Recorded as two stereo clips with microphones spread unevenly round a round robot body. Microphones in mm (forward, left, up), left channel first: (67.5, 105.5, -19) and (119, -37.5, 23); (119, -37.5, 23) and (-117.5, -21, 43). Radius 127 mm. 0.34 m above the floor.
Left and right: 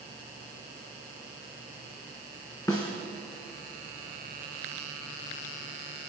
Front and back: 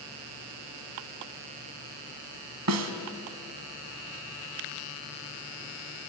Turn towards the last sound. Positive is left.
turn(degrees=-170)